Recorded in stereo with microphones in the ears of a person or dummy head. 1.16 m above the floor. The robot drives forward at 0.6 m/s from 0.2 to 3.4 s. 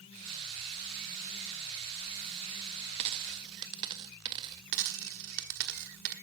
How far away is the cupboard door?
I don't hear a cupboard door.